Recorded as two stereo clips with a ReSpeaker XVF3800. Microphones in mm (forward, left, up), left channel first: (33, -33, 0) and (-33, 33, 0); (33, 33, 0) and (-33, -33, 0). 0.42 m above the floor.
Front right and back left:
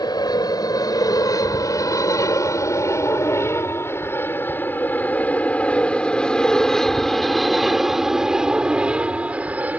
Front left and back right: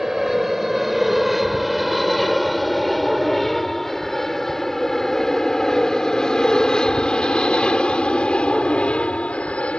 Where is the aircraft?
50° right; by 9.8 s 100° left.